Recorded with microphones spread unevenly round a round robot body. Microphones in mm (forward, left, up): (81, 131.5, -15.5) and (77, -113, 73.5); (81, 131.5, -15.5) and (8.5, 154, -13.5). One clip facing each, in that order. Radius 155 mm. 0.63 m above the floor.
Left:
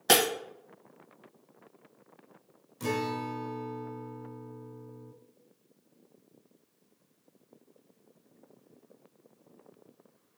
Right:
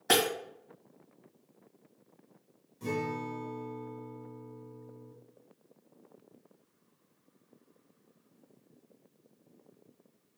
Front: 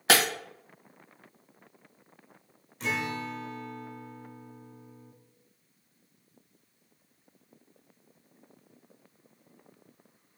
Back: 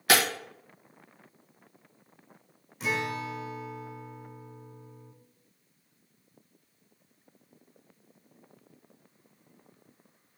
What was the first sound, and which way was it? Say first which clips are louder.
Breaking glass: left 2 dB, even; 45° left.